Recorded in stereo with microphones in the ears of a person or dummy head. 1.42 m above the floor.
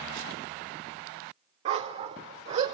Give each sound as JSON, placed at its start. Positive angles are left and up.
{"t": 1.6, "sound": "a dog barking", "side_deg": -35, "distance_m": 1.7}